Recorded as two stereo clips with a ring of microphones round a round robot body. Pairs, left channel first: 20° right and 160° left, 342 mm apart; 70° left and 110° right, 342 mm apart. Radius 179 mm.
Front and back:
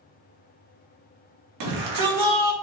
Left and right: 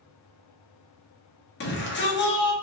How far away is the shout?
About 1.3 m.